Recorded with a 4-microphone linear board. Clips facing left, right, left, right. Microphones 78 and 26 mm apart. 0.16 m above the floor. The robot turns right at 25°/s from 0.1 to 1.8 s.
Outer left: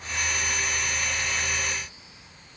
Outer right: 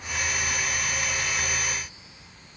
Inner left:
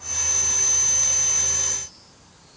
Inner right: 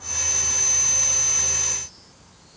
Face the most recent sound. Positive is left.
No sound to turn to.